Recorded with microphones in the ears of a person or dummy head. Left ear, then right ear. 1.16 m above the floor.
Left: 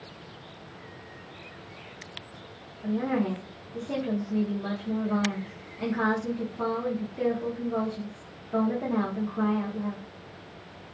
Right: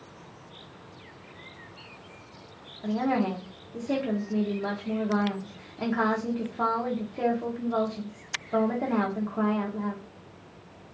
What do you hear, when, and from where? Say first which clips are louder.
2.8 s a woman speaking: right 2 dB; 25° right (ahead or behind), 0.6 m